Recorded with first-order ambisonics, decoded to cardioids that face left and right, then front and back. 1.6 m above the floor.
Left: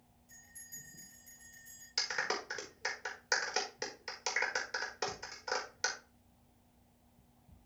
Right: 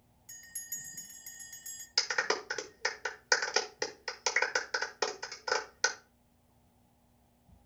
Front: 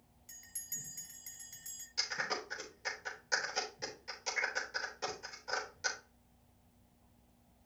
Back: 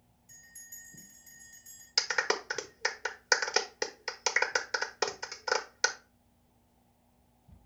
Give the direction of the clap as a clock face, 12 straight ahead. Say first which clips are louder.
Right 4 dB, back 7 dB; 5 o'clock.